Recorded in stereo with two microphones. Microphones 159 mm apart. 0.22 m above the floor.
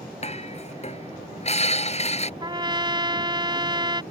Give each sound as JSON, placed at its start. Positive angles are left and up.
{"t": 0.2, "sound": "dishes clattering", "side_deg": 40}
{"t": 2.4, "sound": "a trumpet", "side_deg": -30}